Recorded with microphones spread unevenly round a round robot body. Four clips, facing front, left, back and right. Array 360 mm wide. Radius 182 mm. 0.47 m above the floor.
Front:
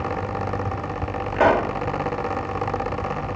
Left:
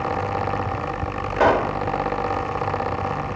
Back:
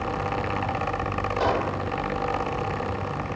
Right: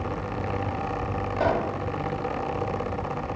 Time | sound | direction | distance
1.4 | a pop | 70° left | 2 m